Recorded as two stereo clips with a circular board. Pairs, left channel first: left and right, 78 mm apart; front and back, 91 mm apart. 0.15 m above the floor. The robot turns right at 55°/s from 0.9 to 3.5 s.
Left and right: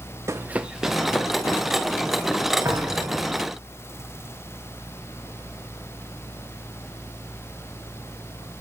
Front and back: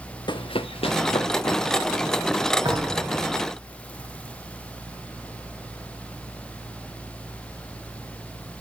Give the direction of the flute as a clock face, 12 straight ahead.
I don't hear a flute.